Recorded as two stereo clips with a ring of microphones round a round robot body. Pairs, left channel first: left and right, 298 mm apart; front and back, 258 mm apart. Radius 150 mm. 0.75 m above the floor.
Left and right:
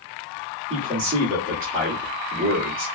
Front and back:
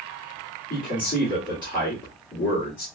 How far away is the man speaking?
About 1.5 m.